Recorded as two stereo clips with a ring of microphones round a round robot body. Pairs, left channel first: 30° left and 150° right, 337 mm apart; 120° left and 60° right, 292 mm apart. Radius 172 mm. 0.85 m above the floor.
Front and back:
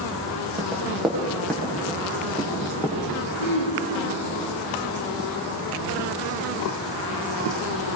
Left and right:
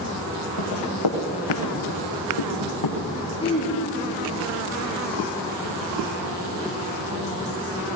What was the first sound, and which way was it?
Running footsteps, 125° left.